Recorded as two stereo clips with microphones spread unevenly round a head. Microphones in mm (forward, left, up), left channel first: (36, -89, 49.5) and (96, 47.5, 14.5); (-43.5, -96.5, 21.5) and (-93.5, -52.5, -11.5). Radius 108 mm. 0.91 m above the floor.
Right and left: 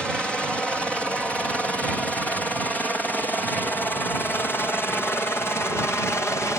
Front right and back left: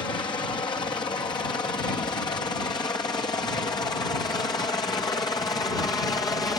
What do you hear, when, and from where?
0.0 s a helicopter: 20° right; by 6.6 s 35° right